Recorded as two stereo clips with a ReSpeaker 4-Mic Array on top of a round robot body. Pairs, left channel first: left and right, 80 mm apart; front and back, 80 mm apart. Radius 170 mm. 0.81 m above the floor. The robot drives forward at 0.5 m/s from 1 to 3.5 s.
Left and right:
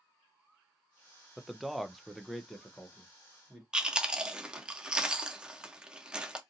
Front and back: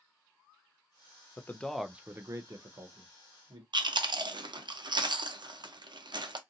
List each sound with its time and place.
1.4 s a man speaking: straight ahead, 0.6 m; by 3.6 s straight behind, 1.0 m
3.7 s chewing: 170° right, 0.7 m